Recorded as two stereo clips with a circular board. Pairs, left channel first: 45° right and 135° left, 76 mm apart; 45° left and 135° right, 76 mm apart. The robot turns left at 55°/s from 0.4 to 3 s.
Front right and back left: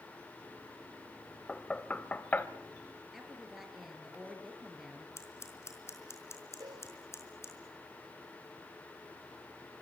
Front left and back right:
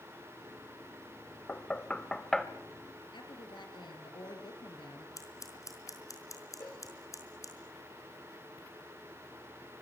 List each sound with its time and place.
1.5 s knocking: 15° left, 1.1 m; by 2.5 s 35° right, 1.1 m
3.1 s a woman speaking: 50° left, 4.5 m
5.2 s scissors: 5° left, 4.5 m
6.6 s a cowbell: 100° left, 4 m